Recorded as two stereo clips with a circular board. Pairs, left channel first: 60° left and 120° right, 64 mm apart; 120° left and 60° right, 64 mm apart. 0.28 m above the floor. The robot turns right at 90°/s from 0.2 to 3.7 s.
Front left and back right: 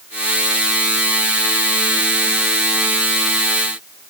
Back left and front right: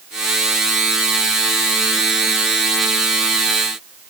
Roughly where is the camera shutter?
I don't hear a camera shutter.